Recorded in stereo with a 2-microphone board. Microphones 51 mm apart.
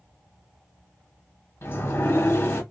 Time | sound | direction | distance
1.6 | a sliding door | 55° left (ahead or behind) | 0.8 m